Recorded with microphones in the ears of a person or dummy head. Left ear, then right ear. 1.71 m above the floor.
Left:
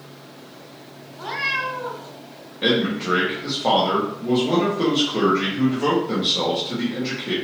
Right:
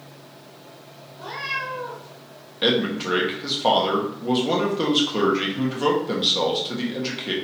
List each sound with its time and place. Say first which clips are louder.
1.1 s a cat meowing: left 4 dB; 35° left (ahead or behind), 1.6 m
2.6 s a man speaking: left 1 dB; 35° right (ahead or behind), 1.2 m